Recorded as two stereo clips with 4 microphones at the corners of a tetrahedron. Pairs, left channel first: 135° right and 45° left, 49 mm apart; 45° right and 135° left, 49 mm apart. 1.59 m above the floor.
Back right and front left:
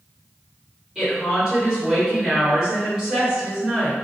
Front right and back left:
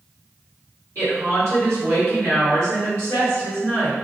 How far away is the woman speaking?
About 1.6 m.